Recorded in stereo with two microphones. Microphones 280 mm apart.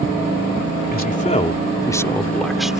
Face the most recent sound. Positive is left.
turn(degrees=-5)  # may be behind; listen again after turning